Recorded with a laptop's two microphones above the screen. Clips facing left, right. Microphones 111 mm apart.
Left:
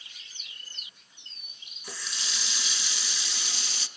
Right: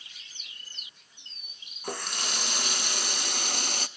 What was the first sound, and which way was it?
A running tap, 55° right (ahead or behind).